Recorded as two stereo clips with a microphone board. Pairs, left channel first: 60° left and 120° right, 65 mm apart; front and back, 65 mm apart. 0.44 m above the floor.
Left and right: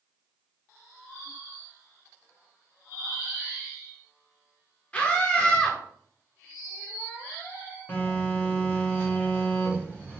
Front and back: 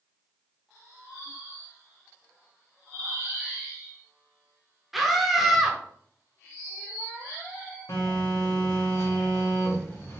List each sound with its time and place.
4.9 s a scream: 95° left, 0.8 m
7.9 s a phone buzzing: 5° left, 1.6 m